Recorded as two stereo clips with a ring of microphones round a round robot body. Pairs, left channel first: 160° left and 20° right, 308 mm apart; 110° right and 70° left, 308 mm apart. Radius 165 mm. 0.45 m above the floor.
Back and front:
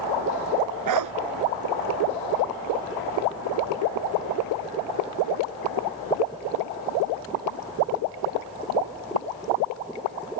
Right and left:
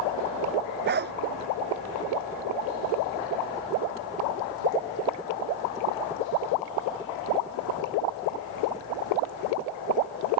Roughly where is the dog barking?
Ahead.